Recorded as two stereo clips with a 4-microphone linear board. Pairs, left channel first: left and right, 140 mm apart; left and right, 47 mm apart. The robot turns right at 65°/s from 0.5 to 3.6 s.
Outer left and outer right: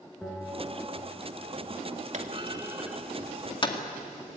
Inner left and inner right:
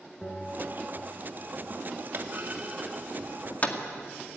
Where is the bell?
Straight behind, 5 m; by 1.0 s 145° right, 5 m.